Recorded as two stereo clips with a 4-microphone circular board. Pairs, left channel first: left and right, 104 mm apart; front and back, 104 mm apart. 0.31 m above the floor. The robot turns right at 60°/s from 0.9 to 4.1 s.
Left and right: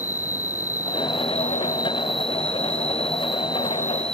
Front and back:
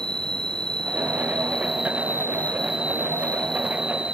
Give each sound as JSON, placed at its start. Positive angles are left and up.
{"t": 0.0, "sound": "an insect", "azimuth_deg": -20}